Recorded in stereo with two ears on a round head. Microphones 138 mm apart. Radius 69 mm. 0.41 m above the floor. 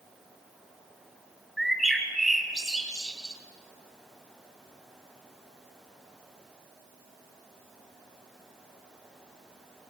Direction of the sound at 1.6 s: Centre (ahead or behind).